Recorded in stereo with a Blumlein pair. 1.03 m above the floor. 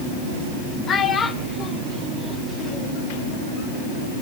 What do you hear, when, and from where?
0.9 s a child speaking: 25° left, 1.9 m; by 3.0 s 20° right, 1.8 m